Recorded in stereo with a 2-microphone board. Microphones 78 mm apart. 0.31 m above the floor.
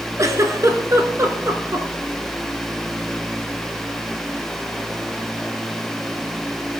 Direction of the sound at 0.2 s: 45° right (ahead or behind).